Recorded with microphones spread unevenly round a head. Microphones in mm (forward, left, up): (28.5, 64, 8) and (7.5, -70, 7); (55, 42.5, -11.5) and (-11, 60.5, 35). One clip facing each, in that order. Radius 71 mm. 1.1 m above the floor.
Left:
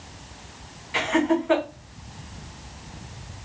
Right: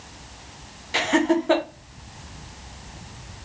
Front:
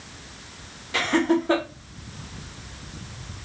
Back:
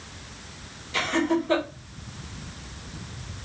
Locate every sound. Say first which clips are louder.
0.9 s laughter: right 1 dB, front 3 dB; 55° right, 0.9 m